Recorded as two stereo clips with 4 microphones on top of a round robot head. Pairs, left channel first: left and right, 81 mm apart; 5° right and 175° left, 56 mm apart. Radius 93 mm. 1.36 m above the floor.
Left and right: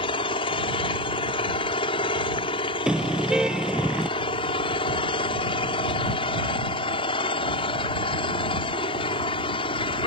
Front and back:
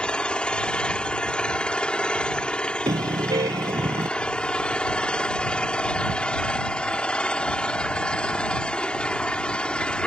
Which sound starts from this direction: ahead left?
An engine running, at 0.0 s.